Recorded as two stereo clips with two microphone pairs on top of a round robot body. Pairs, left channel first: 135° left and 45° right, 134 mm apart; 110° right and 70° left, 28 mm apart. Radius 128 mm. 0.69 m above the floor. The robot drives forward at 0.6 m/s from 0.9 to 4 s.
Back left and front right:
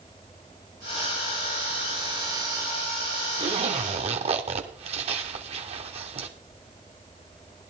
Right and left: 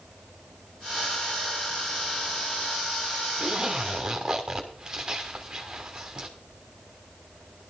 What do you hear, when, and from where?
3.4 s a zipper: straight ahead, 1.3 m